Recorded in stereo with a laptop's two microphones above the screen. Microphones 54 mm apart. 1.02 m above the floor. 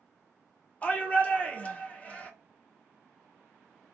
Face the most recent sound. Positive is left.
turn(degrees=25)  # may be behind; listen again after turning